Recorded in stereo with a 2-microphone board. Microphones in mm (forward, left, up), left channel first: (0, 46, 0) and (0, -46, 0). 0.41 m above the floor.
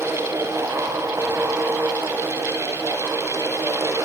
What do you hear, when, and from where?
Only background noise.